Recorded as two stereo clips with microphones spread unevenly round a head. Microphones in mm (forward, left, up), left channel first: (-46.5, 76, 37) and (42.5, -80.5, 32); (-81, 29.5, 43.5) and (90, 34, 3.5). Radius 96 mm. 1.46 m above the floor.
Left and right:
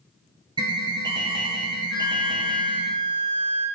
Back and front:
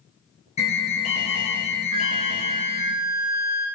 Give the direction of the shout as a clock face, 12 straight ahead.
I don't hear a shout.